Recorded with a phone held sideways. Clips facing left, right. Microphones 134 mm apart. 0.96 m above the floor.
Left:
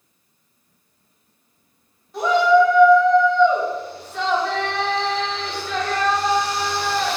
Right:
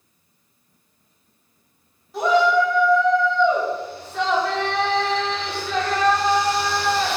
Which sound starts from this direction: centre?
A shout, at 2.1 s.